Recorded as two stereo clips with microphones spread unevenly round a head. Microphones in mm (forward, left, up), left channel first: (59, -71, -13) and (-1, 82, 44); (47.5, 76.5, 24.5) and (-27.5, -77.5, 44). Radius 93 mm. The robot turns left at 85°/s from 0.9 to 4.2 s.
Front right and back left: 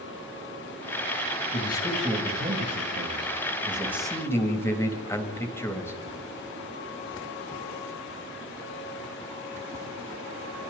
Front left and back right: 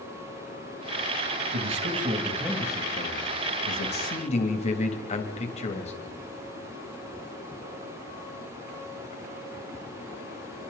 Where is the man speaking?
125° right, 3 m; by 5.9 s 10° left, 3 m.